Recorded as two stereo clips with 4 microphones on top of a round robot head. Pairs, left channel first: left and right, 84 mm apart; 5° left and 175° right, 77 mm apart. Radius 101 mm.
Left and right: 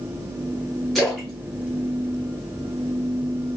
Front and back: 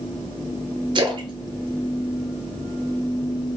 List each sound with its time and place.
0.9 s a splash: 175° left, 0.8 m